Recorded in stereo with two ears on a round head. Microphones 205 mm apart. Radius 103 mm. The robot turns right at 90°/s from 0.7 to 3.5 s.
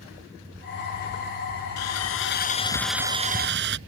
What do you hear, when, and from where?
1.8 s sawing: 80° left; by 3.8 s 125° right